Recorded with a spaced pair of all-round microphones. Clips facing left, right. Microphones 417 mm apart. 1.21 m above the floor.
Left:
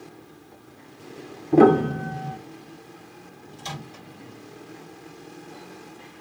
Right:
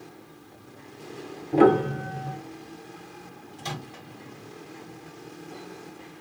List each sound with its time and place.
1.5 s a piano: 60° left (ahead or behind), 0.5 m
3.6 s a microwave: 70° right (ahead or behind), 1.5 m